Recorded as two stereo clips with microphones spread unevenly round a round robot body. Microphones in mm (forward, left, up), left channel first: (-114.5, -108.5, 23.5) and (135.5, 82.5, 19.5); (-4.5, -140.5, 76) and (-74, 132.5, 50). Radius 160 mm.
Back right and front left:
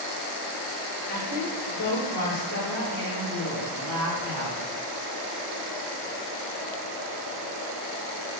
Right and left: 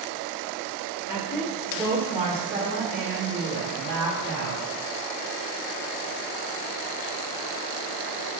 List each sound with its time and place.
1.1 s a woman speaking: 150° right, 1.9 m; by 4.6 s 135° left, 5 m